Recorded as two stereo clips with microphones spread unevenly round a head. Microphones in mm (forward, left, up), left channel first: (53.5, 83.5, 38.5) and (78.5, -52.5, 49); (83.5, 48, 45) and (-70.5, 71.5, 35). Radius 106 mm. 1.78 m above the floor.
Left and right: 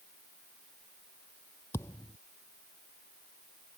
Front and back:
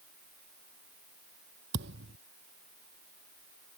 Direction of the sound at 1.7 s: Straight behind.